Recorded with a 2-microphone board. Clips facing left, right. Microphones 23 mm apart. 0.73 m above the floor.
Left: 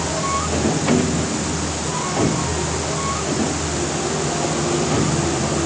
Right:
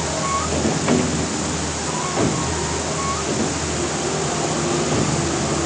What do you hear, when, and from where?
Only background noise.